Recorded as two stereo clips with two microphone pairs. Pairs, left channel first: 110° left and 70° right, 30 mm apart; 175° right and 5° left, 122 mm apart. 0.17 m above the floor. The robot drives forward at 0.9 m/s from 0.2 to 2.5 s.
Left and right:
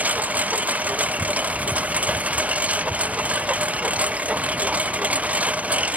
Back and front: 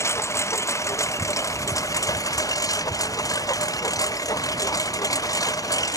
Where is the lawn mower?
105° right; by 6.0 s 110° right.